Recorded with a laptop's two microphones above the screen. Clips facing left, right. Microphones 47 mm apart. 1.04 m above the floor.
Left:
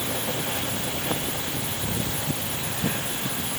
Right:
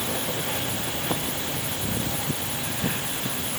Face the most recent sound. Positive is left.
No sound to turn to.